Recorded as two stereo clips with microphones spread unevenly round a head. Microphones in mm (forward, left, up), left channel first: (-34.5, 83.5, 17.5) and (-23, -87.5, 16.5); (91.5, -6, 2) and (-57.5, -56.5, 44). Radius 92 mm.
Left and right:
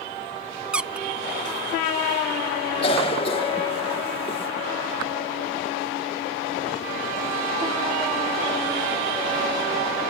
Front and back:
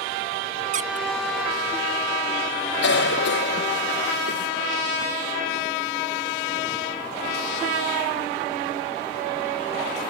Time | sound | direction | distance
0.7 | a squeak | 170° right | ?
2.8 | a cough | 30° left | ?